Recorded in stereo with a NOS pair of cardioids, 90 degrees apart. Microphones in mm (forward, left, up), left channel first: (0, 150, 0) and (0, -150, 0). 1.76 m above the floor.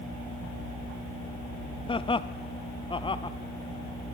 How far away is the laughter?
About 0.7 m.